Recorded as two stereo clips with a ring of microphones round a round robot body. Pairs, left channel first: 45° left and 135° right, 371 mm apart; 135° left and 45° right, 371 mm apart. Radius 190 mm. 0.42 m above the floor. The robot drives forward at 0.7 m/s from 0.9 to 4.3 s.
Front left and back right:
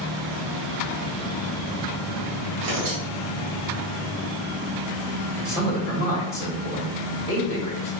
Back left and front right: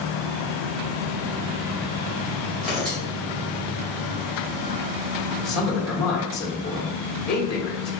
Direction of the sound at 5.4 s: 120° left.